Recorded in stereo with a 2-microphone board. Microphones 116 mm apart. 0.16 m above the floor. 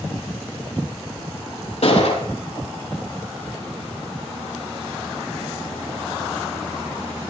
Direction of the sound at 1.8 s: 75° left (ahead or behind).